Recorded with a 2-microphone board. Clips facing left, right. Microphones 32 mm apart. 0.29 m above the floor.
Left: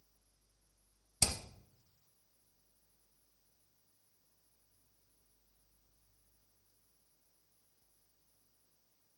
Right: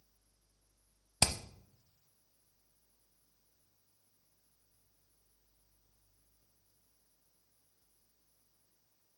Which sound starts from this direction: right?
Hammering, at 1.2 s.